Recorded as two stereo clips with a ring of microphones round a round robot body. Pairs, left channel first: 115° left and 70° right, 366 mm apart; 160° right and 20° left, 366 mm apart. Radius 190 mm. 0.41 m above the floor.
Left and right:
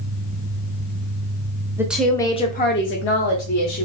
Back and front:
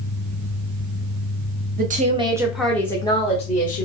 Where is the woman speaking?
5° left, 0.8 m; by 3.9 s 140° left, 1.2 m.